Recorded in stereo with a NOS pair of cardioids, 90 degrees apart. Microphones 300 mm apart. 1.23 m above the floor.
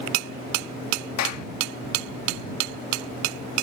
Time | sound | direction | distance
1.2 | a clap | 65° left | ?